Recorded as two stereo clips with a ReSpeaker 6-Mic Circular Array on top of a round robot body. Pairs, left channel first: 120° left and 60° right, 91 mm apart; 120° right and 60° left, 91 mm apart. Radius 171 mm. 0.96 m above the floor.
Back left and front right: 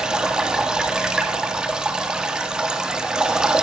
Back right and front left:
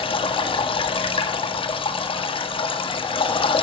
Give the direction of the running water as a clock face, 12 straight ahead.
5 o'clock.